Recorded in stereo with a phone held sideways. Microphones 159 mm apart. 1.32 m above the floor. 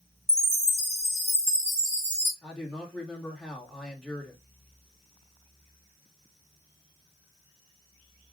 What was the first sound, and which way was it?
A chime, 45° right (ahead or behind).